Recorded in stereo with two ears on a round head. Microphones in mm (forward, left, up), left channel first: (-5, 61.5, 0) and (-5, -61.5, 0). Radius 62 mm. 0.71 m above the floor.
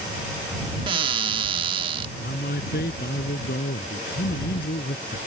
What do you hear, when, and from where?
0.9 s a cupboard door: 40° right (ahead or behind)
2.2 s a man speaking: 80° left